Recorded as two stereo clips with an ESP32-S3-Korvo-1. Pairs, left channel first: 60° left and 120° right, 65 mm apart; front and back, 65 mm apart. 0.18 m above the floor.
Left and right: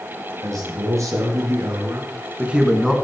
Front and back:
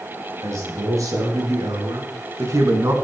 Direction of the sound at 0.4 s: 150° right.